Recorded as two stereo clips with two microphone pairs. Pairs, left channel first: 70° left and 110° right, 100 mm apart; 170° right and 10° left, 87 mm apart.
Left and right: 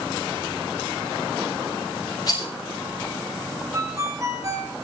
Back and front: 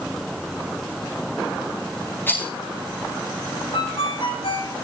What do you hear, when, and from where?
2.3 s a rattle: 120° left, 8.5 m
3.7 s a ringtone: 165° right, 3.5 m